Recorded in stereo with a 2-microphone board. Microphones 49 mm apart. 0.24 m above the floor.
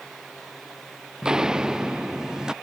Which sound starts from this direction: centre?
Footsteps, at 1.2 s.